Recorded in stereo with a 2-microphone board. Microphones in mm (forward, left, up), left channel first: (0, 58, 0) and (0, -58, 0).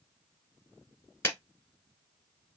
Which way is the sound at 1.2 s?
20° left (ahead or behind).